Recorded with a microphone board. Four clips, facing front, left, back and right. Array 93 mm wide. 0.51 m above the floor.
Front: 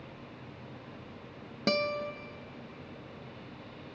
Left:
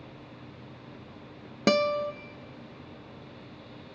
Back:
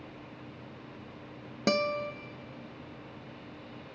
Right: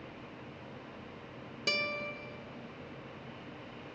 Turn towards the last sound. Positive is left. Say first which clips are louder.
# left 12 dB, back 2 dB
turn(degrees=100)